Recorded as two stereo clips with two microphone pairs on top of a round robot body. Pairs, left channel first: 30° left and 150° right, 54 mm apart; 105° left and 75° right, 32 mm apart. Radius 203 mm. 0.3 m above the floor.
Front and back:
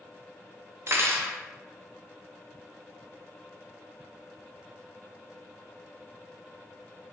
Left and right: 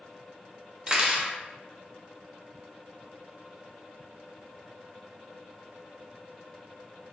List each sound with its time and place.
0.9 s cutlery clinking: 135° right, 0.8 m